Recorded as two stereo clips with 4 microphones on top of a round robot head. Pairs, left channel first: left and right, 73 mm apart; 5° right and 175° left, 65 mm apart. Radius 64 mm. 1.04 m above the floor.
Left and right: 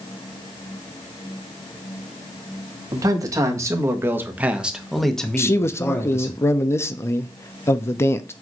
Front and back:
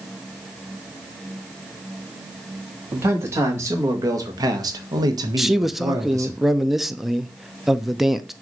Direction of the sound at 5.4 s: 90° left.